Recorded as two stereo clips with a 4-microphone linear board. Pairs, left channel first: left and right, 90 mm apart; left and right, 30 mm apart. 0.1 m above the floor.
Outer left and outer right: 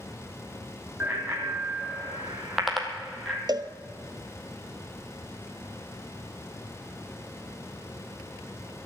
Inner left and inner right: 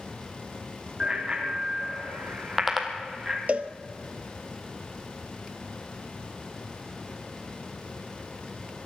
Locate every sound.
1.0 s a bicycle bell: 20° right (ahead or behind), 3 m; by 3.4 s 10° left (ahead or behind), 2.5 m
3.5 s a cowbell: 55° right (ahead or behind), 0.8 m